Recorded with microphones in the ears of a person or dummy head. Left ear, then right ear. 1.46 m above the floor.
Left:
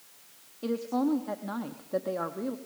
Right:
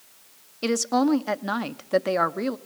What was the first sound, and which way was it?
A woman speaking, 65° right (ahead or behind).